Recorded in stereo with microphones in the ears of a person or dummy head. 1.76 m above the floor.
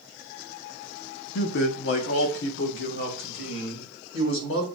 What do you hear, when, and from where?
1.4 s a man speaking: 65° left (ahead or behind), 0.6 m; by 4.7 s 75° left (ahead or behind), 2 m